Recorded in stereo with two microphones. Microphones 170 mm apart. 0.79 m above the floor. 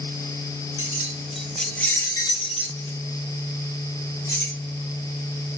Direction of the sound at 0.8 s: 15° right (ahead or behind).